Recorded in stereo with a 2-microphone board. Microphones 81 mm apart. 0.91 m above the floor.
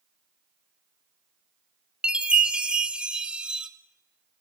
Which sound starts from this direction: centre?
A chime, at 2.0 s.